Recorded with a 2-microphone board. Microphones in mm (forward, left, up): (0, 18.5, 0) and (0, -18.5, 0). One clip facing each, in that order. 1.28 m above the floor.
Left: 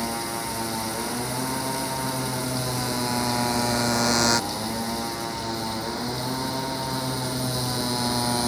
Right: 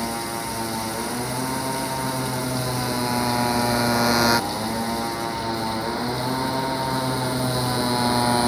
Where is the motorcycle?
5° right (ahead or behind); by 8.5 s 25° right (ahead or behind).